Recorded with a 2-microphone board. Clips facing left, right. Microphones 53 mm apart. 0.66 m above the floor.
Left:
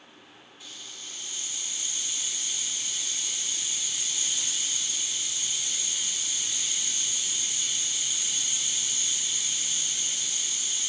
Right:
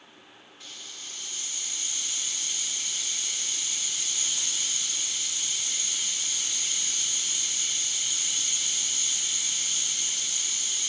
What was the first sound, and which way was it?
A hiss, 55° right (ahead or behind).